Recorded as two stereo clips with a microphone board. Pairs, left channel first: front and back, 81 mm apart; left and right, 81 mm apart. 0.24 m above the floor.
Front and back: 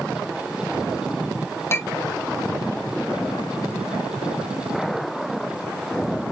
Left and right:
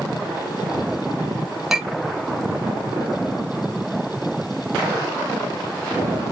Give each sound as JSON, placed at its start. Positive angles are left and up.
{"t": 1.7, "sound": "a clink", "azimuth_deg": -5, "distance_m": 0.6}